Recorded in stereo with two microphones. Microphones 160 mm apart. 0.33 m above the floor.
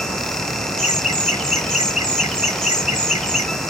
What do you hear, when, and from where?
0.8 s laughter: 50° left (ahead or behind), 1.9 m